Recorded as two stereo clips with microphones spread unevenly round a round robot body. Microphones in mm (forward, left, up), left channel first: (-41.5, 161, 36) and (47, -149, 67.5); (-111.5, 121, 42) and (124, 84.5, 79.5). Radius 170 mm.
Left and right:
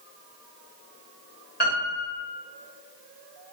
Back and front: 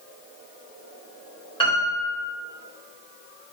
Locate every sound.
1.6 s a piano: 130° left, 1.5 m